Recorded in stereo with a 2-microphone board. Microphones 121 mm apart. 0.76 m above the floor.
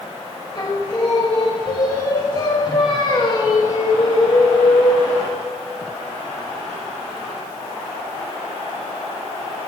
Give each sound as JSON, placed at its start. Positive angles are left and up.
{"t": 0.6, "sound": "singing", "side_deg": 35, "distance_m": 1.0}